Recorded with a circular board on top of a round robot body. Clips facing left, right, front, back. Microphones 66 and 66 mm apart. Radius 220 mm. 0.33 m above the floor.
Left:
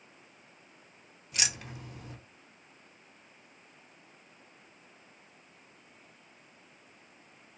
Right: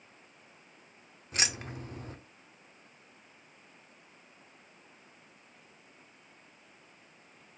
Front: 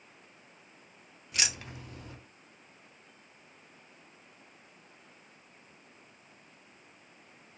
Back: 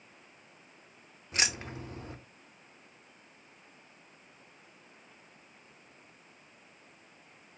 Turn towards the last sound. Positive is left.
turn(degrees=-130)